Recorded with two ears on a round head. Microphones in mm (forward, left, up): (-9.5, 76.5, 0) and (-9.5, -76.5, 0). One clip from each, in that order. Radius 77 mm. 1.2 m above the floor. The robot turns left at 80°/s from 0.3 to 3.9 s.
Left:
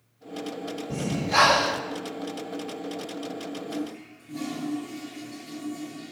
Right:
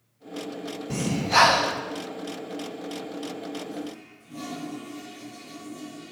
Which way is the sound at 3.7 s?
80° left.